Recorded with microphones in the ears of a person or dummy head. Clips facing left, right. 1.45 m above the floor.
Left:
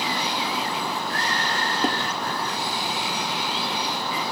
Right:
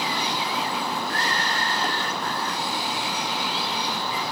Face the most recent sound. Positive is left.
turn(degrees=25)  # may be behind; listen again after turning